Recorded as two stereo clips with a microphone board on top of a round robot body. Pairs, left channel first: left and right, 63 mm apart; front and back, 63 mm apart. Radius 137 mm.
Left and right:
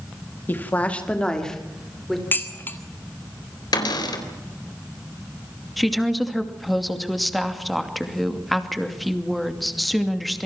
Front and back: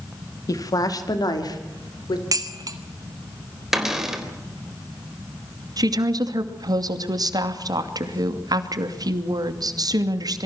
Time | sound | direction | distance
0.5 | a woman speaking | 30° left | 2 m
2.3 | dishes clattering | 150° left | 1.8 m
3.7 | a cupboard door | 95° left | 4 m
5.8 | a woman speaking | straight behind | 2.5 m